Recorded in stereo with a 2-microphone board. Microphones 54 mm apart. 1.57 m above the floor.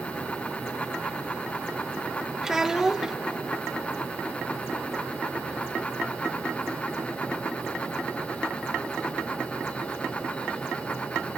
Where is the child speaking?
10° right (ahead or behind), 0.9 m.